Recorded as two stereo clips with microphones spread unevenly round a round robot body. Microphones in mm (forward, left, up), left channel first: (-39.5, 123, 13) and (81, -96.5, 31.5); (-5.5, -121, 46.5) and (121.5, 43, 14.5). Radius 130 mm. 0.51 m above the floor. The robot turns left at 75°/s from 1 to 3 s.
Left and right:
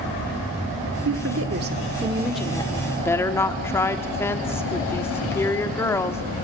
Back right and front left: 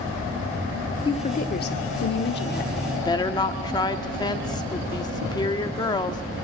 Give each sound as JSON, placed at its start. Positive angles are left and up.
{"t": 1.1, "sound": "a woman speaking", "azimuth_deg": -55, "distance_m": 1.7}
{"t": 3.0, "sound": "a woman speaking", "azimuth_deg": 170, "distance_m": 1.1}